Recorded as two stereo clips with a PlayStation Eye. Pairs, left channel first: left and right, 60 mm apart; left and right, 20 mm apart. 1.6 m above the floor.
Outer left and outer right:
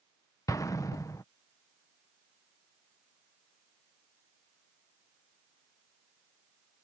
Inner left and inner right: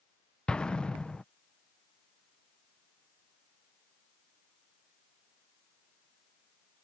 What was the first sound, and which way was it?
An explosion, 70° left (ahead or behind).